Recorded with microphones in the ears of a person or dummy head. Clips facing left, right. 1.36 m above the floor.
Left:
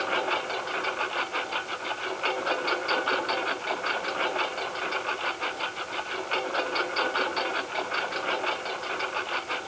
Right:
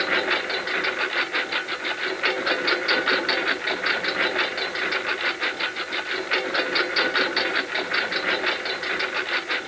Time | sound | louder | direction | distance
0.0 | a lawn mower | right 3 dB | 25° right (ahead or behind) | ?